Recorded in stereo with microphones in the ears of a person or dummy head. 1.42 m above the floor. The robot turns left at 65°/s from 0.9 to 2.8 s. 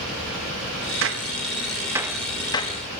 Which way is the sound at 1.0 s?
65° right (ahead or behind).